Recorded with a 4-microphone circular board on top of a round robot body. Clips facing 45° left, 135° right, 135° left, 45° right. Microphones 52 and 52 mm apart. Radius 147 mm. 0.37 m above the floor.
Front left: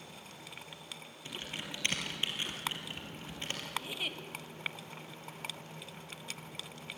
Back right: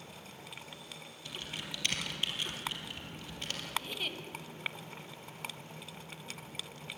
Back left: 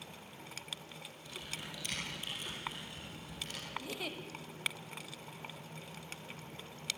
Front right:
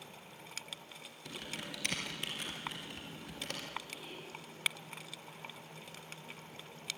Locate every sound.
1.2 s typing on a keyboard: 15° right, 3 m
3.8 s a giggle: 130° left, 1.3 m